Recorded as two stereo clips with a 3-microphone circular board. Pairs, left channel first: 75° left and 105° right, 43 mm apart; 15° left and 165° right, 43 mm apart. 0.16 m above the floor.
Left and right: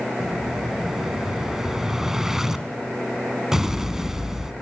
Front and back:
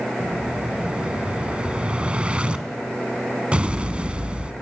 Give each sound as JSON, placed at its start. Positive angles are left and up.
{"t": 0.2, "sound": "an explosion", "azimuth_deg": -170, "distance_m": 1.3}